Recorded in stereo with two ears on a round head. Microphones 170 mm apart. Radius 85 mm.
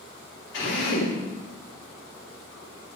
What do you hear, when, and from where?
0.5 s a drill: 70° left (ahead or behind), 4 m